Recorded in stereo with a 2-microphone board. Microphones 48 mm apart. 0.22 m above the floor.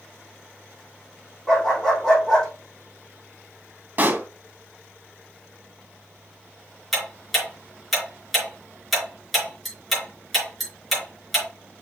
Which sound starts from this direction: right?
A pop, at 4.0 s.